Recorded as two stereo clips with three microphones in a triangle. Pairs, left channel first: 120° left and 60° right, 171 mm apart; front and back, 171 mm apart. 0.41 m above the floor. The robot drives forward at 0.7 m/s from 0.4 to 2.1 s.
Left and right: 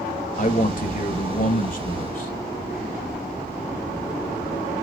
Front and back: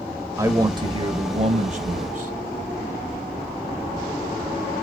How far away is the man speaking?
About 1.4 m.